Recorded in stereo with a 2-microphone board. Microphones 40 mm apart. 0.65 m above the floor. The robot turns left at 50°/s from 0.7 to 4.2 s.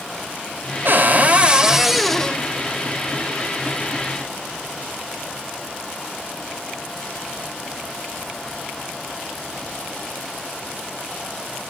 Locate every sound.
0.8 s a cupboard door: 130° right, 1.8 m; by 2.4 s 155° left, 1.8 m